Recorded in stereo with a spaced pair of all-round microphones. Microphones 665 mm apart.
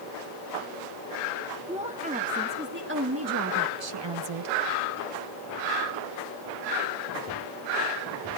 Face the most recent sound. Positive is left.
turn(degrees=-60)  # may be behind; listen again after turning